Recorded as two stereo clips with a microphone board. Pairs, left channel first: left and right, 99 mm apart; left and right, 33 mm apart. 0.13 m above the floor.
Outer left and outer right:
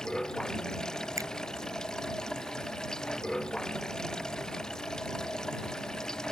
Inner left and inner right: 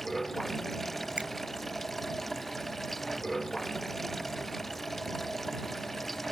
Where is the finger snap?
35° right (ahead or behind).